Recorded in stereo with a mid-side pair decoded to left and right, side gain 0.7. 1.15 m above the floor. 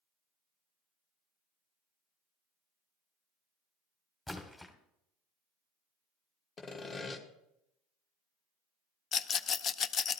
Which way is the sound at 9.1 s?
35° left.